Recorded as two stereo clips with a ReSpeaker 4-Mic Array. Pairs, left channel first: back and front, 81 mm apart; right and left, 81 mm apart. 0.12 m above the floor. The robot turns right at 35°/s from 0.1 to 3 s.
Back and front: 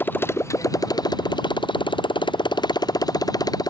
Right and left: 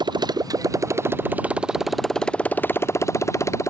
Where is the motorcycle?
115° left; by 3.7 s 145° right.